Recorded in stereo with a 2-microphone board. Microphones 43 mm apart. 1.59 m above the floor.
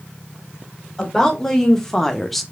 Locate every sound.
1.0 s a woman speaking: 15° left (ahead or behind), 2.5 m; by 2.4 s 5° left (ahead or behind), 0.7 m